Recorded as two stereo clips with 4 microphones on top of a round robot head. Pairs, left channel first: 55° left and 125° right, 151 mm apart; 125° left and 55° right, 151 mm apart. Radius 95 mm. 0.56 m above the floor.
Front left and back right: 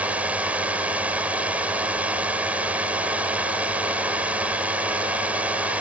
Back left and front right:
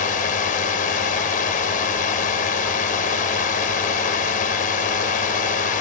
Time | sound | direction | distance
0.0 | a drone | 150° left | ?